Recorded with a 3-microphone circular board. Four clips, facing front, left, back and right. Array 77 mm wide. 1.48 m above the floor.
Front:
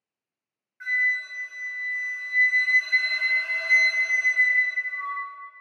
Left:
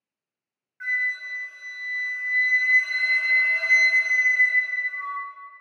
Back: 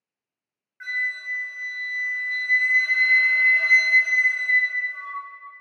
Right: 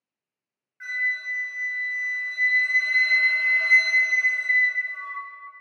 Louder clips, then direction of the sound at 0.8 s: Left 1 dB, front 3 dB; 160° left.